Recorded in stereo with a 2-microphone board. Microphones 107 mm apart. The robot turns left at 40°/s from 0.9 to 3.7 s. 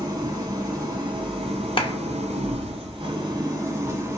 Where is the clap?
50° left (ahead or behind), 0.7 m.